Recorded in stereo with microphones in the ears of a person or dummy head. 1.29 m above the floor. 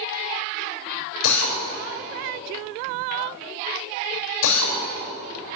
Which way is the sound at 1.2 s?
75° left (ahead or behind).